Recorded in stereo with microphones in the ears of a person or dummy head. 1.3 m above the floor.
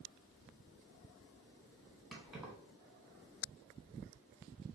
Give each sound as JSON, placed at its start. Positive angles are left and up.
{"t": 2.1, "sound": "keys jangling", "side_deg": -5, "distance_m": 0.9}